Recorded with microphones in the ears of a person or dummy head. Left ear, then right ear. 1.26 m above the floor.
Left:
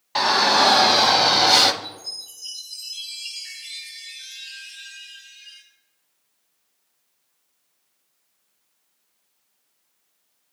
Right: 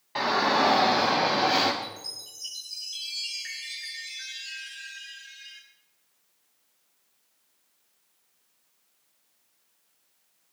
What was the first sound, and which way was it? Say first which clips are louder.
A shout: left 6 dB; 40° left (ahead or behind).